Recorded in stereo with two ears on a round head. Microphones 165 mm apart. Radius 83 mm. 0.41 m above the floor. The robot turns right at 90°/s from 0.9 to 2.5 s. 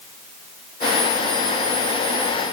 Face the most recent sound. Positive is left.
No sound to turn to.